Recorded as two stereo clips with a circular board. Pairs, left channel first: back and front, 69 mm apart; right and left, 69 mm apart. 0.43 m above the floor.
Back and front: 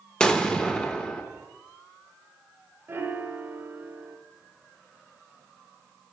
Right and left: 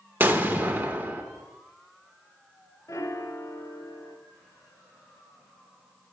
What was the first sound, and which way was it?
An explosion, 115° left.